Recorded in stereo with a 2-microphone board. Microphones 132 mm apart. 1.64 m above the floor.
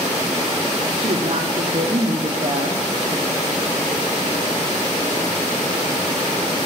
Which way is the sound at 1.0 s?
50° right (ahead or behind).